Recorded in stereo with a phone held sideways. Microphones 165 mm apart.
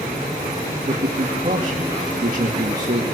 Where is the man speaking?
50° right (ahead or behind), 2 m.